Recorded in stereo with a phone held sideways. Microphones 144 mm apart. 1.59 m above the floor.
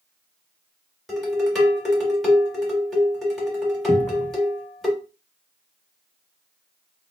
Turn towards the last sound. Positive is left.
turn(degrees=15)  # may be behind; listen again after turning